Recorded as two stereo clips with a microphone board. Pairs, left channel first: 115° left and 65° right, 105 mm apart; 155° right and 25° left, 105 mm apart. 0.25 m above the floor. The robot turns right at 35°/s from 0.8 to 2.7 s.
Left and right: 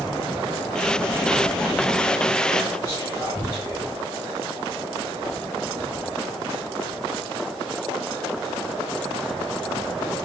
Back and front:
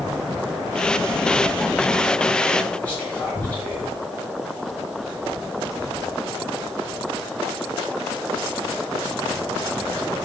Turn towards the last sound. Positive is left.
turn(degrees=140)